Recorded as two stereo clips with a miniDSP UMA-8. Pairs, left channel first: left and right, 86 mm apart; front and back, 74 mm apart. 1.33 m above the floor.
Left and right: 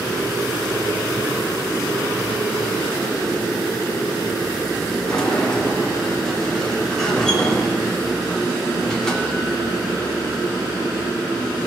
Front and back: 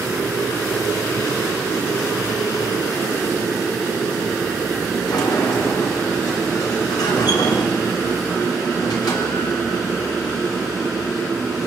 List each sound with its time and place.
5.1 s a sliding door: 5° left, 3 m